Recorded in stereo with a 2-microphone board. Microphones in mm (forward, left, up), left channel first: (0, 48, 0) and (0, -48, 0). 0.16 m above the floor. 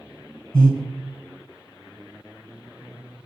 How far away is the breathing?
About 1.2 m.